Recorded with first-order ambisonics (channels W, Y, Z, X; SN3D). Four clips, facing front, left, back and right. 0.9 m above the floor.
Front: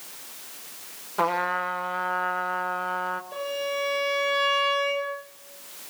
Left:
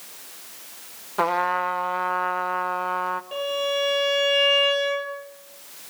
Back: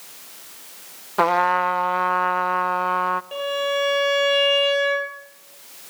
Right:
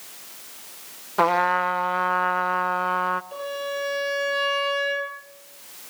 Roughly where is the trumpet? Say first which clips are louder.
Right 2 dB, back 7 dB; behind right.